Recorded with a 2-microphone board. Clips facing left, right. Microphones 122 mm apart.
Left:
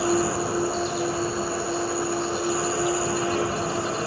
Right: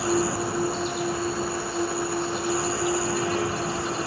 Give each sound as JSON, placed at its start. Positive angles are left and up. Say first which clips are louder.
{"t": 0.0, "sound": "an insect", "louder": "left 1 dB", "side_deg": 30, "distance_m": 1.6}